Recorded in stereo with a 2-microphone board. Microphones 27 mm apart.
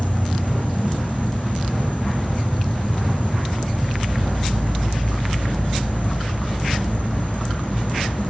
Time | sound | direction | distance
0.0 | an insect | 85° left | 0.8 m